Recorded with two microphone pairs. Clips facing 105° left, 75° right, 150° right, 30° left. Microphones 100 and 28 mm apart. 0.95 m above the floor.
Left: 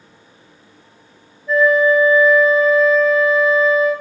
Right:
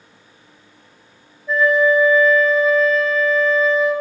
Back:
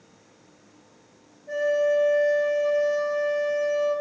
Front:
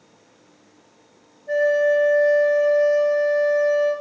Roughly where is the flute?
Ahead.